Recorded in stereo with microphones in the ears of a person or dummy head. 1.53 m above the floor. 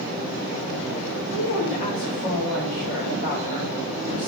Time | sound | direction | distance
1.3 | a woman speaking | 45° left (ahead or behind) | 2.5 m